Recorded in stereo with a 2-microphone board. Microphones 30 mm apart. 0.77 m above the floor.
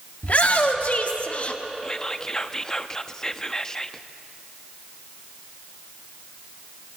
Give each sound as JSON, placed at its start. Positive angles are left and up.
{"t": 0.2, "sound": "a shout", "side_deg": 55, "distance_m": 2.0}
{"t": 1.8, "sound": "whispering", "side_deg": 20, "distance_m": 0.8}